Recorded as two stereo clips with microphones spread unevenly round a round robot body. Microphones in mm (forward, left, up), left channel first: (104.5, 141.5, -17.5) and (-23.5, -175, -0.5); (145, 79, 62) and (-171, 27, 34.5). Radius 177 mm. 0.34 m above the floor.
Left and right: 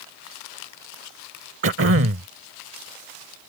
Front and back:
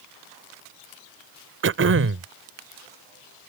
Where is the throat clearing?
150° right.